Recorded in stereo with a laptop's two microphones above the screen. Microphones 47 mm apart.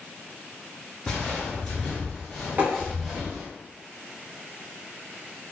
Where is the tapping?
40° right (ahead or behind), 0.9 m.